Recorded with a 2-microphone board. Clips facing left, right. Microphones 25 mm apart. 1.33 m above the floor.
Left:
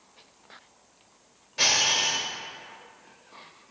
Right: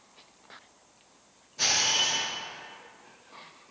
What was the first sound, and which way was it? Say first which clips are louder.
A camera shutter: left 3 dB; 55° left (ahead or behind).